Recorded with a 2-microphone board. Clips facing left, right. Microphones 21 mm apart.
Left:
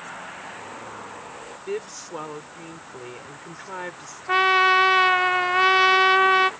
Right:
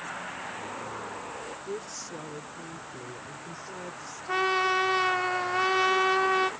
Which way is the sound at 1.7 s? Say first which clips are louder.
Left 9 dB; 85° left.